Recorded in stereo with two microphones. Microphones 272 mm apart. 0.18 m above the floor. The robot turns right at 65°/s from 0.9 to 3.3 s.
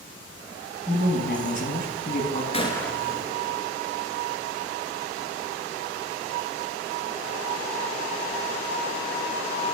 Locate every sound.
0.9 s a woman speaking: 40° left, 1.3 m; by 2.4 s 140° left, 1.3 m
2.5 s a gunshot: 25° left (ahead or behind), 1.1 m; by 3.7 s 20° right (ahead or behind), 1.1 m